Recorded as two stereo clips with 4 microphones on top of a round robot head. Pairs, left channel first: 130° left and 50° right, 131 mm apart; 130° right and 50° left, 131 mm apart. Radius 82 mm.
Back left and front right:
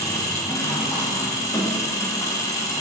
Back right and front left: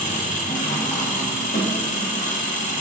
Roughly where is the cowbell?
I don't hear a cowbell.